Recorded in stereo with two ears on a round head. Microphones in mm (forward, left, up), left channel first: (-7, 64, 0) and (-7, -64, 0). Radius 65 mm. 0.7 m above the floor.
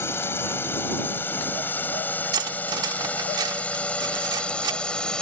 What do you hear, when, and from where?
0.0 s a drone: 15° left (ahead or behind); by 5.2 s 5° left (ahead or behind)
2.3 s cutlery clinking: 30° right (ahead or behind)